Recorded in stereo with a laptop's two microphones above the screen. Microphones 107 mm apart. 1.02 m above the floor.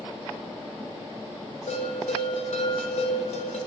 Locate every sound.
1.7 s a bell: 70° left (ahead or behind), 0.7 m